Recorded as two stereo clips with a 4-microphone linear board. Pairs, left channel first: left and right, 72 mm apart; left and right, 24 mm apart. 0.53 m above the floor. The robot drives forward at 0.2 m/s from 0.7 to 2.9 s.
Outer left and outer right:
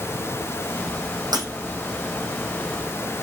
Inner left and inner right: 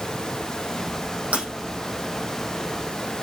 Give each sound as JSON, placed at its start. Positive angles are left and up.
{"t": 1.3, "sound": "breaking glass", "side_deg": -65, "distance_m": 3.5}